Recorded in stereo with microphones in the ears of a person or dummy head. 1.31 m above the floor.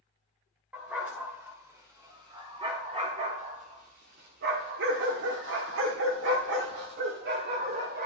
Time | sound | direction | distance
0.7 | a dog barking | 5° right (ahead or behind) | 2.5 m